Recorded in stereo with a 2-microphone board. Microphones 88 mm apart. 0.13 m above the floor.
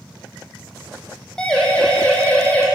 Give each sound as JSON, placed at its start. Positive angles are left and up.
{"t": 1.4, "sound": "a siren", "side_deg": 10, "distance_m": 5.0}